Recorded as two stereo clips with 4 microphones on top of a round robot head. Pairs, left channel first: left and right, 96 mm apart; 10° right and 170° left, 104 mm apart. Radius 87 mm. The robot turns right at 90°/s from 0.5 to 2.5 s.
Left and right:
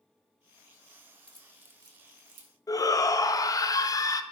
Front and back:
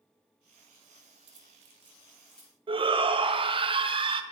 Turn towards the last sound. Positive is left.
turn(degrees=140)